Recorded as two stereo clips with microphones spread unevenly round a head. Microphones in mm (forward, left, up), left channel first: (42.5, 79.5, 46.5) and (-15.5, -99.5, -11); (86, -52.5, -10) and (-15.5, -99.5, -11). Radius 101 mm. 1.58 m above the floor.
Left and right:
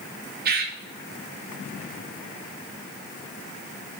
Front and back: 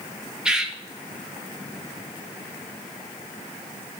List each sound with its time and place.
0.5 s a bird: 75° right, 0.9 m